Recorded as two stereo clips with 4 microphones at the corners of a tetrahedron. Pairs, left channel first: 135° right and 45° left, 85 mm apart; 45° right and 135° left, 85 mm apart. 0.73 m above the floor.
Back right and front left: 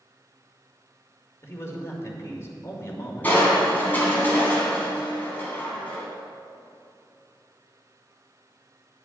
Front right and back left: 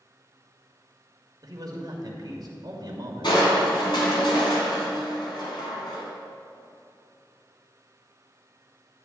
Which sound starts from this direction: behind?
A man speaking, at 1.4 s.